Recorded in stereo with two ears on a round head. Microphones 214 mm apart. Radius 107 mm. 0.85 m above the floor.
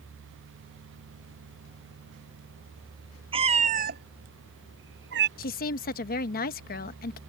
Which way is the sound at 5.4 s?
40° left (ahead or behind).